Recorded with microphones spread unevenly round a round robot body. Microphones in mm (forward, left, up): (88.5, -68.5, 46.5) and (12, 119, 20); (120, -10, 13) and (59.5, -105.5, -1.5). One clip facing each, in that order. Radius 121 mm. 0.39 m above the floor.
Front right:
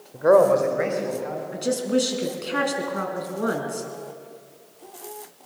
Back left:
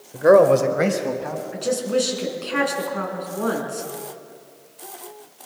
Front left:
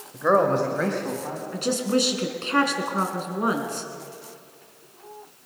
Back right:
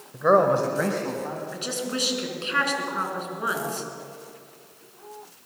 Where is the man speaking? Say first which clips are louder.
Back left 3 dB, back right 1 dB; 165° left, 1.4 m; by 1.4 s 150° left, 3 m.